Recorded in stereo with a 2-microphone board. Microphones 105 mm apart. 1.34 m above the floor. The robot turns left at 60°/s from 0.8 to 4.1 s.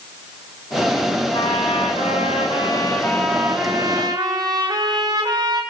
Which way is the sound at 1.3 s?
125° left.